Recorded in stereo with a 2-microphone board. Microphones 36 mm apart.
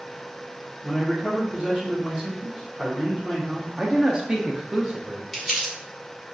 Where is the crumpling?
5° right (ahead or behind), 1.8 m.